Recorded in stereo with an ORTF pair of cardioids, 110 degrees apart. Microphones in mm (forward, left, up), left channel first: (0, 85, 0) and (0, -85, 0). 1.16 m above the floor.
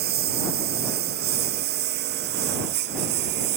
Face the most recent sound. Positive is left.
turn(degrees=-80)